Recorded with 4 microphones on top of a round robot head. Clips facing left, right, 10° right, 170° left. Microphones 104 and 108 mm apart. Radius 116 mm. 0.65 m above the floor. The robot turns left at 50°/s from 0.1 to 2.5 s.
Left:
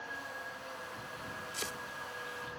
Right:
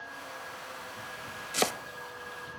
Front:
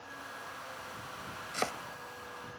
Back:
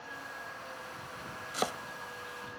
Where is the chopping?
105° right; by 1.8 s 115° right.